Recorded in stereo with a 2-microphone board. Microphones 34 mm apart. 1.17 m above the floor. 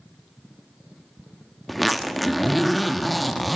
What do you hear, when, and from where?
1.7 s a zipper: centre (ahead or behind), 0.6 m